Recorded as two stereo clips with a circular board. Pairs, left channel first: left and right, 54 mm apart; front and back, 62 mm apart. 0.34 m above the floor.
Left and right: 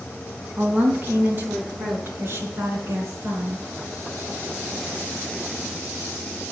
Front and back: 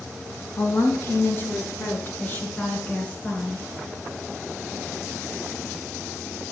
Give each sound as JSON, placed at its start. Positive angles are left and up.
{"t": 0.6, "sound": "a woman speaking", "azimuth_deg": -35, "distance_m": 3.5}